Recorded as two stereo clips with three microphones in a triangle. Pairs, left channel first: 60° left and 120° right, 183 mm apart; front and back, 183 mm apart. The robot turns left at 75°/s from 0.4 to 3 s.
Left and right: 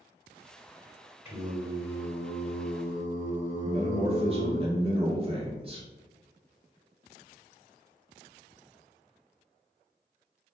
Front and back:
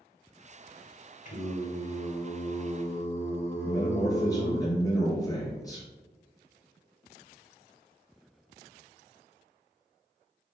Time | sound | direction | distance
1.2 | singing | 40° right | 1.5 m
3.6 | a man speaking | 65° right | 1.7 m